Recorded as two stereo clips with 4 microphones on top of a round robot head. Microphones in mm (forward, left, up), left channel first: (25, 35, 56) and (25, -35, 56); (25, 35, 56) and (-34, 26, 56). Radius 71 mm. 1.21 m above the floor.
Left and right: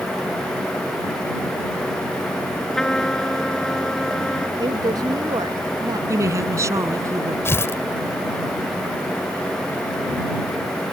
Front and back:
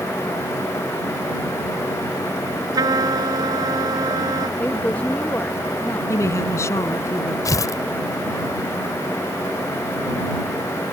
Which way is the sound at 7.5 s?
35° left.